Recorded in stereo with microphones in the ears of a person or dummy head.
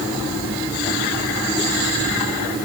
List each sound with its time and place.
Only background noise.